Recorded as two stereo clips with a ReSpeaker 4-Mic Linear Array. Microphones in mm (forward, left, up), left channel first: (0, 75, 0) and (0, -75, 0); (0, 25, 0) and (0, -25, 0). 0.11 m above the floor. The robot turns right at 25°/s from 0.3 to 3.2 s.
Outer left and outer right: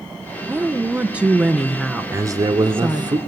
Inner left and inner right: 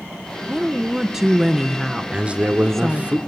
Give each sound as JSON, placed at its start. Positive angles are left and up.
{"t": 0.5, "sound": "a woman speaking", "side_deg": -15, "distance_m": 1.3}
{"t": 2.1, "sound": "a man speaking", "side_deg": -20, "distance_m": 1.4}